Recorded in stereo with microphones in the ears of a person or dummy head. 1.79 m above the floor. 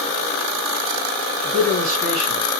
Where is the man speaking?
30° right (ahead or behind), 2.5 m.